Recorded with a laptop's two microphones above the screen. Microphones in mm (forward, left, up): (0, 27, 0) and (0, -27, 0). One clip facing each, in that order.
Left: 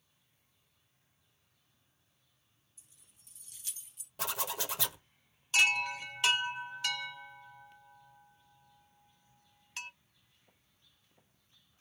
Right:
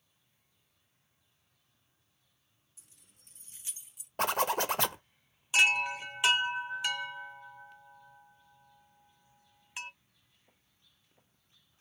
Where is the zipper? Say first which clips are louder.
Right 9 dB; 50° right (ahead or behind), 0.7 m.